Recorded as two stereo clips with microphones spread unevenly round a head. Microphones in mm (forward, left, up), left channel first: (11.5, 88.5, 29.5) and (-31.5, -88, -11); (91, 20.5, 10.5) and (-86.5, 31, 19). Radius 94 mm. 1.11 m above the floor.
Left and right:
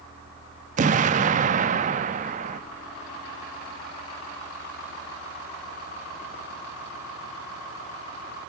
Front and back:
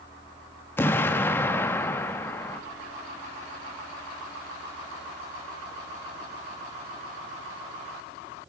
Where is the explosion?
75° right, 0.5 m.